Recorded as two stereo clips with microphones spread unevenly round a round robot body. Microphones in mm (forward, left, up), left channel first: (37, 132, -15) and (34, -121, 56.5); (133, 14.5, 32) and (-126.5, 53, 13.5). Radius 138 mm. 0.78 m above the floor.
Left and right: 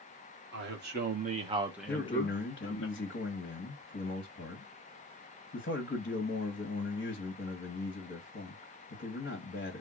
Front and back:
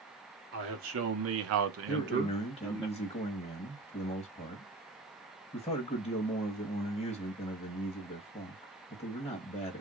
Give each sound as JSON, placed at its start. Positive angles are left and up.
{"t": 0.5, "sound": "a man speaking", "azimuth_deg": -145, "distance_m": 1.4}
{"t": 1.9, "sound": "a man speaking", "azimuth_deg": 60, "distance_m": 1.0}